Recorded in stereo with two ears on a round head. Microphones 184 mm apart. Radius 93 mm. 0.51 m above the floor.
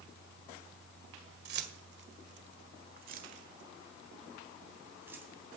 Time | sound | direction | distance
1.4 | keys jangling | 55° right (ahead or behind) | 1.7 m